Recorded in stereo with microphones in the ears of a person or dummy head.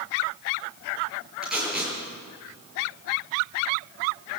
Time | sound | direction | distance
1.4 | tape being pulled | 5° right (ahead or behind) | 10 m